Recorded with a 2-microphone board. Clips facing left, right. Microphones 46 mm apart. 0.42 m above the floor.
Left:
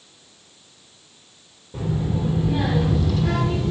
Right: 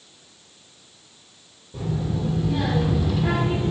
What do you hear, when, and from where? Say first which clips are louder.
1.7 s a child speaking: left 2 dB; 30° left (ahead or behind), 1.1 m; by 3.7 s 25° right (ahead or behind), 1.0 m